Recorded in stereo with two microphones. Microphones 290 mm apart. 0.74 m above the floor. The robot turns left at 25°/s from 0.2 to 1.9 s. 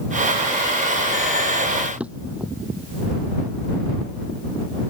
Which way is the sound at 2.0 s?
5° right (ahead or behind).